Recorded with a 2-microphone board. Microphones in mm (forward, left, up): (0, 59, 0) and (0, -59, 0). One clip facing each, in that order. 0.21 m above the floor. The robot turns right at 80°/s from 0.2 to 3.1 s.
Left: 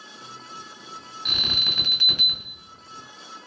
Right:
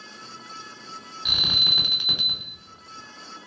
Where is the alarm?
5° right (ahead or behind), 0.6 m; by 2.5 s 15° right (ahead or behind), 0.6 m.